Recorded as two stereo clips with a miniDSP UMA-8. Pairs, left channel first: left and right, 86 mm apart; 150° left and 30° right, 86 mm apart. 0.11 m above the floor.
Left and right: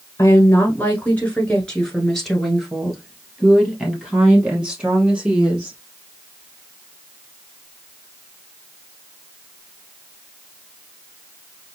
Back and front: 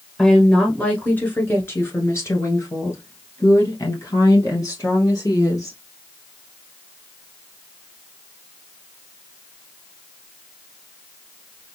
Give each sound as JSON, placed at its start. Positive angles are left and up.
{"t": 0.2, "sound": "a woman speaking", "azimuth_deg": 80, "distance_m": 1.4}